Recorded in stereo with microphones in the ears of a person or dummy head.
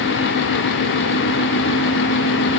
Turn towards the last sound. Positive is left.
No sound to turn to.